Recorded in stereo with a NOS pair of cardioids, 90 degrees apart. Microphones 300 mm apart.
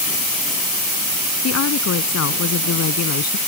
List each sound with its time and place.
1.4 s a woman speaking: 55° left; by 3.4 s 60° left